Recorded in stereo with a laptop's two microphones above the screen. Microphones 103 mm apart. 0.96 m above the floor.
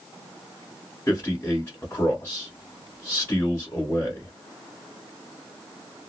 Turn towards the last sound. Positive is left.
turn(degrees=25)  # may be behind; listen again after turning